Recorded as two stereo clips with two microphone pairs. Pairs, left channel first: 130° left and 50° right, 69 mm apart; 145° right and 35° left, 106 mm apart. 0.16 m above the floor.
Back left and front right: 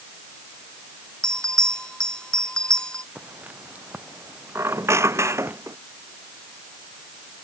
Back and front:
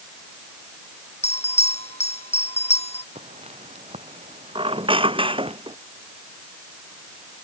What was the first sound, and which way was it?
A bell, 150° right.